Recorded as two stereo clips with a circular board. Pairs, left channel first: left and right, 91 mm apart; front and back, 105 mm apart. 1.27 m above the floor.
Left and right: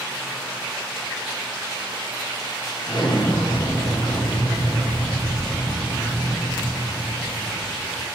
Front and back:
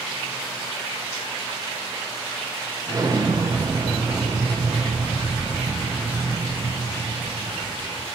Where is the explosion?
125° left, 0.6 m.